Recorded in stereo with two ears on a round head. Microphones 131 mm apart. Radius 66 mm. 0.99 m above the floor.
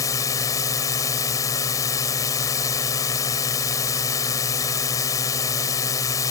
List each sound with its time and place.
0.0 s a drone: 25° left (ahead or behind)